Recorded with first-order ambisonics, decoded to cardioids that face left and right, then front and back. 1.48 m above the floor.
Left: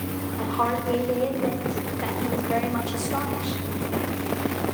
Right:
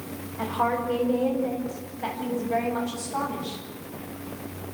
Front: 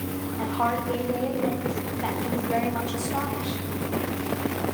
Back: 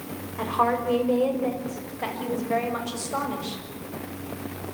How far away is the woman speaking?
About 6.5 m.